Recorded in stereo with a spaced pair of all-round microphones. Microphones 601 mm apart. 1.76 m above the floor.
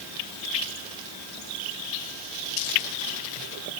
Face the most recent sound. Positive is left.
No sound to turn to.